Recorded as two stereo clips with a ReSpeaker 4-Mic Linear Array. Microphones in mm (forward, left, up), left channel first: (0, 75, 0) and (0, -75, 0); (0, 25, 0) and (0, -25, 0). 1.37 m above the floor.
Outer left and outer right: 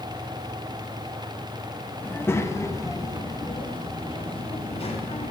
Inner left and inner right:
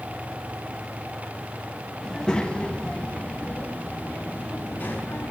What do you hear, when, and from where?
2.0 s a child speaking: 10° left (ahead or behind), 1.4 m; by 5.3 s 45° left (ahead or behind), 2.5 m